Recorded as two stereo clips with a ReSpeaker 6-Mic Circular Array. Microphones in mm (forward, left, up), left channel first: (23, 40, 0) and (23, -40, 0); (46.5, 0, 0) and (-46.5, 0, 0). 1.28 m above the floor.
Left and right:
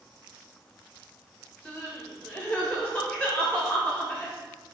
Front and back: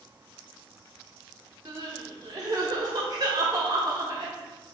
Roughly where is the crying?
Behind.